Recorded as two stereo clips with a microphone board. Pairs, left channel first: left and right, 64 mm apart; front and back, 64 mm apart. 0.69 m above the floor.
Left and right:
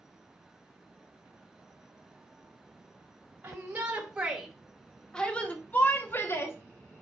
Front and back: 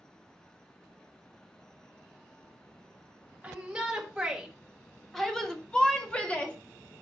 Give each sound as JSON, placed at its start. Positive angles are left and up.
{"t": 3.4, "sound": "a shout", "azimuth_deg": -125, "distance_m": 1.3}